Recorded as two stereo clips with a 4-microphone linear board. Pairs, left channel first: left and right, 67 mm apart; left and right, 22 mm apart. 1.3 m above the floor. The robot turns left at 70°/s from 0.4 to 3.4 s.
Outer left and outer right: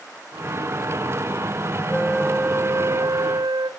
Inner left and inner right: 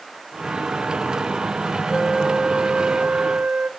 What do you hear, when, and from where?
1.9 s a flute: 20° left, 0.7 m; by 3.7 s 85° right, 0.7 m